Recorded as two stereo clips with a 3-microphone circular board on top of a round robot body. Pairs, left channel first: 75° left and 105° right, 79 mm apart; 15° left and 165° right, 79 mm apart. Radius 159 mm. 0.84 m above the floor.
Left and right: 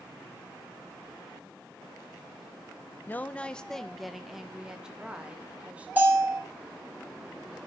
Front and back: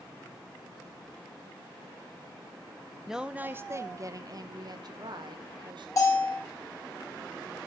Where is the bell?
35° right, 3.5 m.